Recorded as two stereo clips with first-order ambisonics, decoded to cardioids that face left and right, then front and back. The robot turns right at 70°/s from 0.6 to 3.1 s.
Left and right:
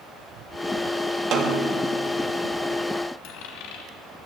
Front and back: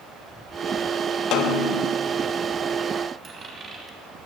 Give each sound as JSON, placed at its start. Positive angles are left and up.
{"t": 1.3, "sound": "a snare drum", "azimuth_deg": -40, "distance_m": 1.5}
{"t": 3.2, "sound": "a dropped coin", "azimuth_deg": 105, "distance_m": 2.5}